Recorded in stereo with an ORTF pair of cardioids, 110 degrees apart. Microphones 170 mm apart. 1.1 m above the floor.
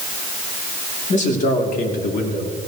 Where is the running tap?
No running tap in this recording.